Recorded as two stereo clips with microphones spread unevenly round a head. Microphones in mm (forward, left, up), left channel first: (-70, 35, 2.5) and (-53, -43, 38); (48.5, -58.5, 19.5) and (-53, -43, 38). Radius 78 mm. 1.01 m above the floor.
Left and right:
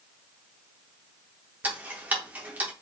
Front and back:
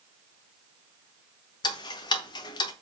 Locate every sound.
1.6 s ticking: 15° left, 0.8 m